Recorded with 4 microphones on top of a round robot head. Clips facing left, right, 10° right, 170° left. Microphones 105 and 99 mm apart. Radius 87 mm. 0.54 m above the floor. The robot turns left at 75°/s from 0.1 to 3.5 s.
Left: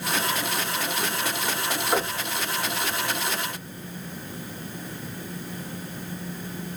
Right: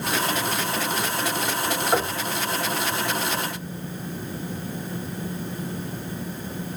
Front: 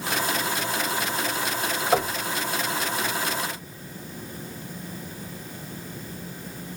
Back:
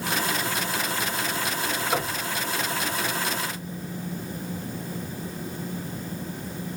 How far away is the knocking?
About 2 m.